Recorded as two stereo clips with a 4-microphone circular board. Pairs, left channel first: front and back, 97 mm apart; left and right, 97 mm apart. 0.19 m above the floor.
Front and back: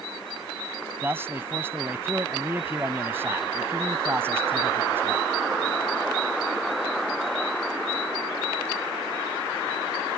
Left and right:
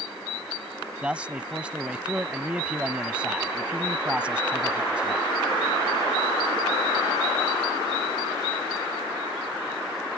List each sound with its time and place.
1.0 s a man speaking: 155° right